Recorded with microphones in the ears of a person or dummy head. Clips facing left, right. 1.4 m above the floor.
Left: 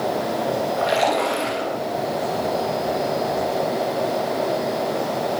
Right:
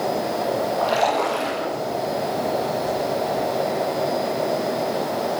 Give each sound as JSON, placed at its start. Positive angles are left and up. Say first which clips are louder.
{"t": 0.8, "sound": "a splash", "louder": "left 1 dB", "side_deg": 30, "distance_m": 9.5}